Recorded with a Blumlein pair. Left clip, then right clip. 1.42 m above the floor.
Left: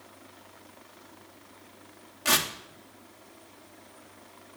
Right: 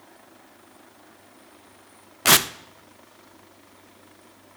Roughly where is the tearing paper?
Ahead right.